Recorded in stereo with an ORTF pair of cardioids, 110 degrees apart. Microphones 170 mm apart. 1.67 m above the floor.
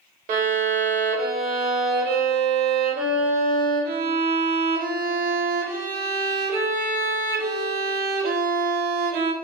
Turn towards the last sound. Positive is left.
turn(degrees=-60)